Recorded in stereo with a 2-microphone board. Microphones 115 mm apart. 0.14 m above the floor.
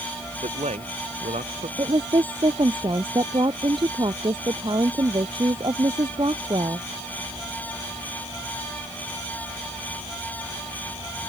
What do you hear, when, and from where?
0.4 s a man speaking: 80° right
1.8 s a woman speaking: 45° right (ahead or behind)